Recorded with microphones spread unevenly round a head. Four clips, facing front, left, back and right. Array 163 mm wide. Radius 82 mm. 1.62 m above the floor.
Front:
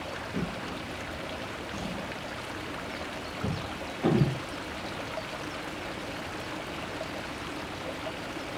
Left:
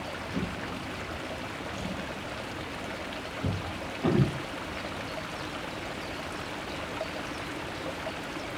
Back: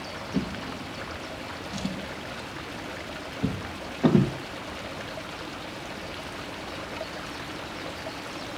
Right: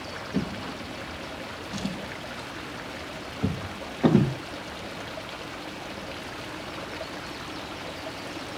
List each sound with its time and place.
0.3 s a drawer: 120° right, 1.1 m